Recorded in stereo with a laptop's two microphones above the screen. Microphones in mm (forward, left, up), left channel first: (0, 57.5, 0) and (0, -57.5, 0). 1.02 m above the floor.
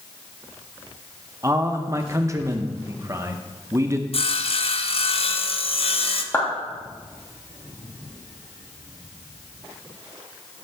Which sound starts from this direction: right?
A man speaking, at 1.4 s.